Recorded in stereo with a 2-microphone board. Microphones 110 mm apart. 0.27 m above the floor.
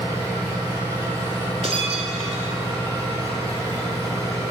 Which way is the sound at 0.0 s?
30° right (ahead or behind).